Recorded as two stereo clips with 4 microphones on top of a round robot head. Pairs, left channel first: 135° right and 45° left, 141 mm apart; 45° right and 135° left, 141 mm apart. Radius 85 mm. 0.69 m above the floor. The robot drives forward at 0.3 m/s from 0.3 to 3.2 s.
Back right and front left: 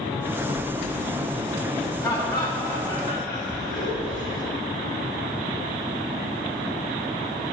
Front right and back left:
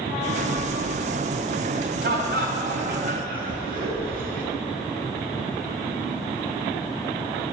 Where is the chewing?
140° right, 0.7 m; by 1.0 s 150° right, 0.8 m.